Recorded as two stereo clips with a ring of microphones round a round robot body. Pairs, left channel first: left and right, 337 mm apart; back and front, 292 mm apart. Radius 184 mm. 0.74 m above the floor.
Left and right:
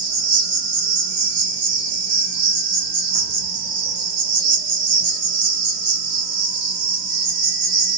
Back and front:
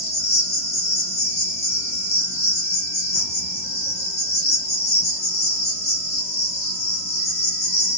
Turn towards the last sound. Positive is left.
turn(degrees=-110)